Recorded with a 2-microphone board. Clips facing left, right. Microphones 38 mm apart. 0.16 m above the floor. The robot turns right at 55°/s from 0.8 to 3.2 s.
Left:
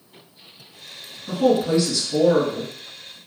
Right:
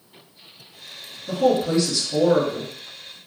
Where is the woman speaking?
25° left (ahead or behind), 1.9 m; by 3.2 s 30° right (ahead or behind), 1.9 m.